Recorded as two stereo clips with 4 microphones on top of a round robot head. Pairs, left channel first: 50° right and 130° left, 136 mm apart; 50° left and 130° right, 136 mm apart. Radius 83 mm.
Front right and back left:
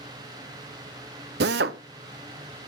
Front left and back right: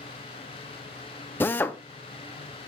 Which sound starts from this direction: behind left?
A drill, at 1.4 s.